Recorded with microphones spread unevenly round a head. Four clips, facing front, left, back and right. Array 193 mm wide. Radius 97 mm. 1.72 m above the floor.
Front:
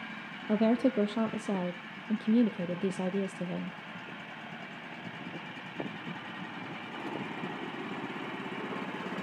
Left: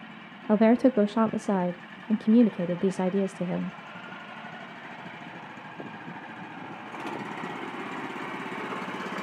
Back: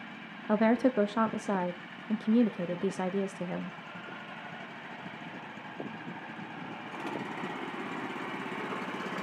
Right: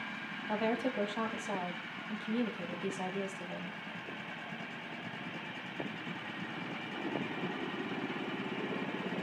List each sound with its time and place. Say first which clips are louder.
0.5 s a woman speaking: left 13 dB, back 1 dB; 75° left, 0.8 m